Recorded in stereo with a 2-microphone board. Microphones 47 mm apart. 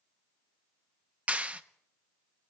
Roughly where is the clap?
Right.